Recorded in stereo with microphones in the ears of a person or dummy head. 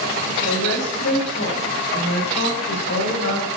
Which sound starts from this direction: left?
A woman speaking, at 0.4 s.